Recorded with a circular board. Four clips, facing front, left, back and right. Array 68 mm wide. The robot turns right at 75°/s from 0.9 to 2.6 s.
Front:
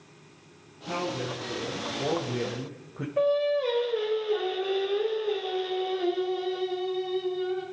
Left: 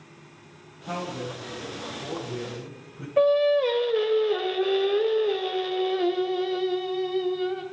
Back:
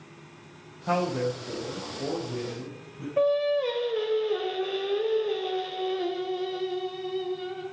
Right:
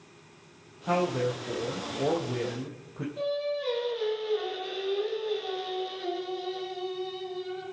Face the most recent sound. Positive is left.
turn(degrees=95)